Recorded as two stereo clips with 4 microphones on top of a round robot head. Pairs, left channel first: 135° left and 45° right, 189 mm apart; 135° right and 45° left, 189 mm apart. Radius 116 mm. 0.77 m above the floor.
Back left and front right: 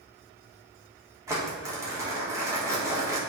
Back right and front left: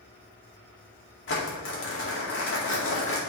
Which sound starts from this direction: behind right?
Crumpling, at 1.3 s.